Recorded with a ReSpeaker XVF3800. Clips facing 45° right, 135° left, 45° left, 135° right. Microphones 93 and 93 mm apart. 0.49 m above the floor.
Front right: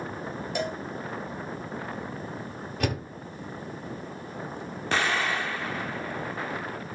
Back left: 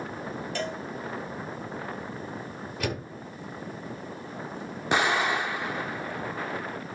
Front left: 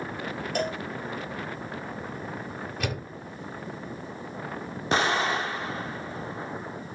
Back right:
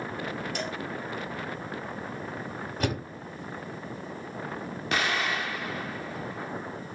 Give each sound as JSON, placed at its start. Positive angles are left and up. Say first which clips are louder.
{"t": 0.6, "sound": "a cowbell", "louder": "front right 3 dB, front left 5 dB", "azimuth_deg": 25, "distance_m": 1.0}
{"t": 2.8, "sound": "a door slam", "louder": "front right 2 dB, back right 4 dB", "azimuth_deg": -85, "distance_m": 9.0}
{"t": 4.9, "sound": "an explosion", "louder": "back left 2 dB, front left 4 dB", "azimuth_deg": 80, "distance_m": 0.7}